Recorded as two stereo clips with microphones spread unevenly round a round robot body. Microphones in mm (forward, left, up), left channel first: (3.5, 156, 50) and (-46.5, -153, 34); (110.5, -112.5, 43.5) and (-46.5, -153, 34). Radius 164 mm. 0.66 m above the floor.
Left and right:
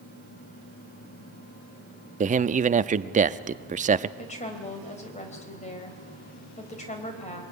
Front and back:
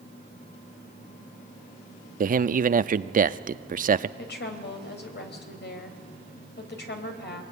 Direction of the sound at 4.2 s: 10° left.